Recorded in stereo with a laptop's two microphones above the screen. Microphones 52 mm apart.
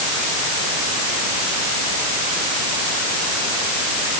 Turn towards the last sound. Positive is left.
No sound to turn to.